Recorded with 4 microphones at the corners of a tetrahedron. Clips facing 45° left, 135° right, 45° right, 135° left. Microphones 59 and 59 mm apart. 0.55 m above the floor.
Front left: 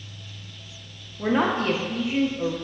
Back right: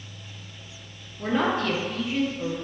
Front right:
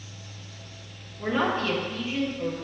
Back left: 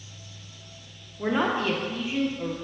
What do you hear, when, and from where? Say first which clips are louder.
1.2 s a man speaking: front left 2 dB, back left 1 dB; 80° left, 1.0 m